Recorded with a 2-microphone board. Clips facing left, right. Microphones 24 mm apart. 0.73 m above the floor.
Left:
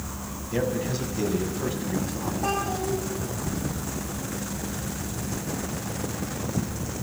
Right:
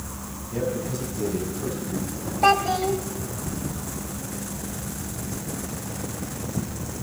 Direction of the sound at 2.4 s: 60° right (ahead or behind).